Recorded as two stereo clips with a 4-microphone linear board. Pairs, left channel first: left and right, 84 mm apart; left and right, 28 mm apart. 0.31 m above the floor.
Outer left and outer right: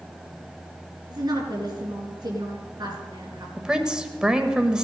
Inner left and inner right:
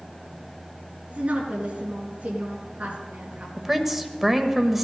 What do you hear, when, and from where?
1.1 s a woman speaking: 50° right (ahead or behind), 4 m
3.6 s a woman speaking: 10° right (ahead or behind), 1.2 m